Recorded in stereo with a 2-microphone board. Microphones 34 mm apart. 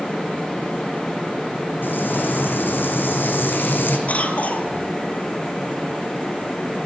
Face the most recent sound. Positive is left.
turn(degrees=45)  # may be behind; listen again after turning